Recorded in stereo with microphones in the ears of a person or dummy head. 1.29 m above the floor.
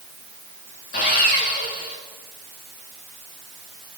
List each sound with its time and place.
0.9 s sawing: 60° left (ahead or behind), 3.5 m